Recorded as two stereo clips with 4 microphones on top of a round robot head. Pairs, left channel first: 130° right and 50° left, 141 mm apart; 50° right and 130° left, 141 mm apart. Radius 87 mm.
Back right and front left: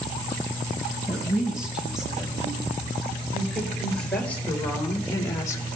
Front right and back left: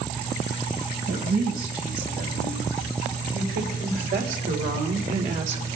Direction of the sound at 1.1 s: 130° left.